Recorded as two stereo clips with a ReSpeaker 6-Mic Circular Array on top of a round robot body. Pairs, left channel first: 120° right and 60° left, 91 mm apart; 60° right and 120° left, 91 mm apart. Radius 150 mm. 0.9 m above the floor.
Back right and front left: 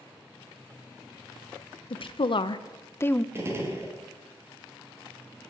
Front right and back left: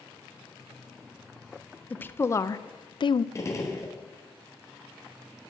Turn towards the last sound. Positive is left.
turn(degrees=-5)